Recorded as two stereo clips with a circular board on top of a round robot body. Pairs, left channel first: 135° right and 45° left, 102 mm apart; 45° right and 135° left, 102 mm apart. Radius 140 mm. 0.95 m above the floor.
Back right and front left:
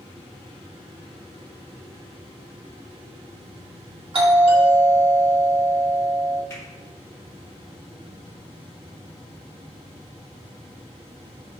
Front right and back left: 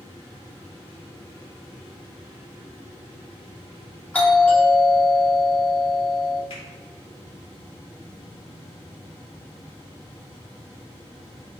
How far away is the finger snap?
About 3.5 m.